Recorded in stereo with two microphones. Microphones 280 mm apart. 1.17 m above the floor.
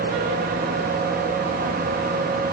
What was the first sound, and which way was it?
Only background noise.